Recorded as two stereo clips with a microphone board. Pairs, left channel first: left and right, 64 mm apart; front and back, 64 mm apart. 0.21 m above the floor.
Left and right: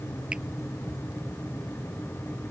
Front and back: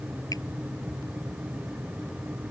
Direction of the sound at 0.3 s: 15° right.